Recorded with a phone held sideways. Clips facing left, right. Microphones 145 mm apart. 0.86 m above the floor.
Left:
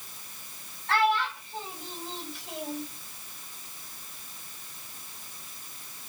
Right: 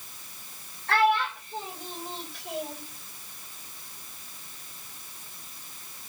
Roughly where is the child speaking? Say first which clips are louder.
Right 2 dB; right.